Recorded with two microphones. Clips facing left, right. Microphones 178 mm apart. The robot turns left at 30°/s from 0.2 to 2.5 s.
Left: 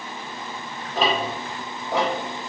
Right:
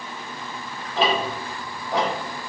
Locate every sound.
0.9 s ticking: 50° left (ahead or behind), 1.1 m; by 2.1 s 25° left (ahead or behind), 1.1 m